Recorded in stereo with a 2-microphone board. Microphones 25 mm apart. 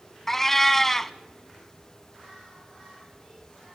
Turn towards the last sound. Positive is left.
turn(degrees=10)  # may be behind; listen again after turning